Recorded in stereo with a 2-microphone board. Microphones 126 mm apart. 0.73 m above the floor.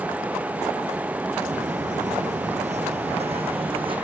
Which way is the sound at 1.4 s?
60° right (ahead or behind).